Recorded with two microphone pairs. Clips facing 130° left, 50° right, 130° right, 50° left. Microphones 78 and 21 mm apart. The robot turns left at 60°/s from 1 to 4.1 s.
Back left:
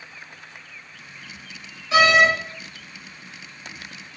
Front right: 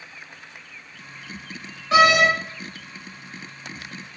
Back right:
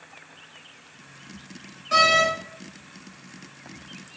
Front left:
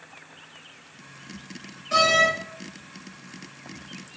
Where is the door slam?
55° right, 1.3 m; by 2.3 s 75° right, 1.3 m.